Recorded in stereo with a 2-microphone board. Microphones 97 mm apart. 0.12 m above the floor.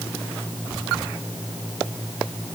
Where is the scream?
No scream in this recording.